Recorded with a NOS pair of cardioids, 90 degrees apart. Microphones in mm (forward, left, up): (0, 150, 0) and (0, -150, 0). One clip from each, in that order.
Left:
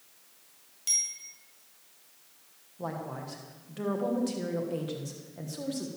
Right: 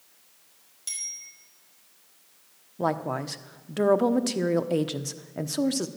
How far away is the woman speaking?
About 1.1 m.